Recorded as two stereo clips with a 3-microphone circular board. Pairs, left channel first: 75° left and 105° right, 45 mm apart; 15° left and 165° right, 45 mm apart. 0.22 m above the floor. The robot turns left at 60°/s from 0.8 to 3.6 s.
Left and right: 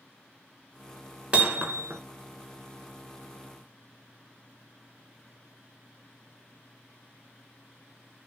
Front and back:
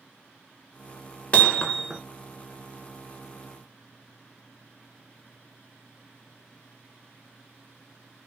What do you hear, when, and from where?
1.3 s hammering: 45° right, 0.6 m; by 2.0 s 85° right, 0.6 m